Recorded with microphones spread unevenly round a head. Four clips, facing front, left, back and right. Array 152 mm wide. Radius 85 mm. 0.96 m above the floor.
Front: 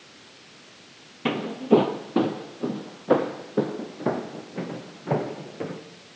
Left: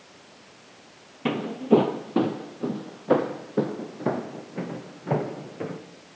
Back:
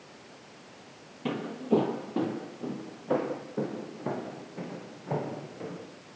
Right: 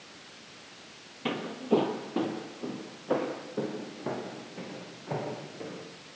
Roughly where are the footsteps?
Ahead.